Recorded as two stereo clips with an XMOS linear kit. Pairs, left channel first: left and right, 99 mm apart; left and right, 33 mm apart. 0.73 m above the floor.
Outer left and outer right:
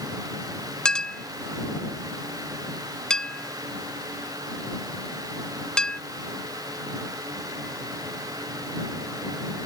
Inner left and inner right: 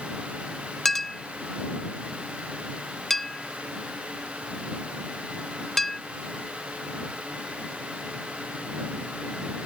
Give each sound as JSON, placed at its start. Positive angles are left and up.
{"t": 0.8, "sound": "a clink", "side_deg": 10}